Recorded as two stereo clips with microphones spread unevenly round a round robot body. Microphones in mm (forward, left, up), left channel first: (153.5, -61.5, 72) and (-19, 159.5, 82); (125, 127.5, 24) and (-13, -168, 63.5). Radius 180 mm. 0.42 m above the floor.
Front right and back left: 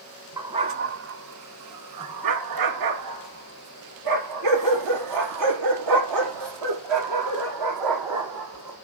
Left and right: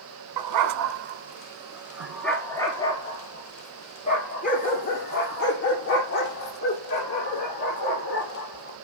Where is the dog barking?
150° right, 0.9 m; by 8.8 s 125° left, 5 m.